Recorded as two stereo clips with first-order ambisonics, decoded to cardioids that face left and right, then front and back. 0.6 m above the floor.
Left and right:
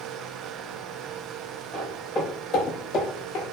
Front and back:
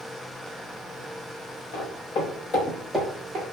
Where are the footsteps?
15° left, 1.4 m; by 3.5 s 135° left, 0.9 m.